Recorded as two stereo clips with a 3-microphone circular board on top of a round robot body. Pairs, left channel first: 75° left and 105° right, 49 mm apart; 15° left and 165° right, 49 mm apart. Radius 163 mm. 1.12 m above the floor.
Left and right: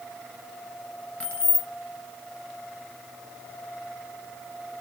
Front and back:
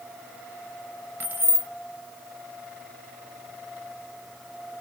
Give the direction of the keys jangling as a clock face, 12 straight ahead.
7 o'clock.